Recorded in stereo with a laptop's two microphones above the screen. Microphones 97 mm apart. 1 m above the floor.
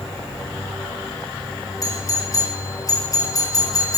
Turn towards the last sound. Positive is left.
turn(degrees=35)  # may be behind; listen again after turning